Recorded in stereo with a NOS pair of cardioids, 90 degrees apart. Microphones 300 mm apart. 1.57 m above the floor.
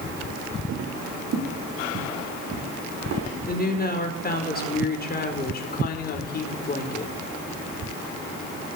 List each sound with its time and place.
0.7 s footsteps: 50° right, 6 m; by 3.3 s 70° right, 7 m
3.5 s a woman speaking: 30° left, 4.5 m